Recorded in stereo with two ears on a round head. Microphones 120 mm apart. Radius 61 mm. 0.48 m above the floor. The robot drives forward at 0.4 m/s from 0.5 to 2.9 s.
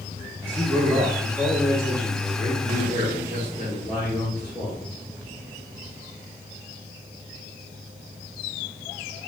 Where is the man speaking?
15° right (ahead or behind), 0.7 m; by 4.8 s 10° right (ahead or behind), 1.0 m.